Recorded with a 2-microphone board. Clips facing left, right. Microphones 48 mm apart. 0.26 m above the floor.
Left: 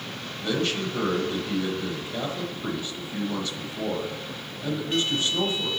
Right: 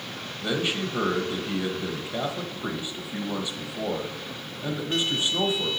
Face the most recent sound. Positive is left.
turn(degrees=-15)  # may be behind; listen again after turning